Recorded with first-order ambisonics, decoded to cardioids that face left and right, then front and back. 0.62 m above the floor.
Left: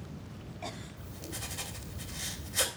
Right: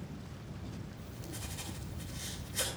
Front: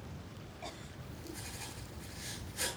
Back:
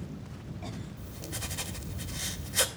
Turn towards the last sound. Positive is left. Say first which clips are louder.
# left 4 dB, back 7 dB
turn(degrees=155)